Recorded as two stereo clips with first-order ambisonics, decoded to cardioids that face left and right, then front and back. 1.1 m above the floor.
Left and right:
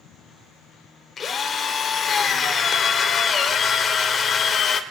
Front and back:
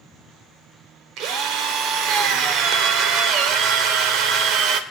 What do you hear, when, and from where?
1.2 s a drill: 150° left, 1.2 m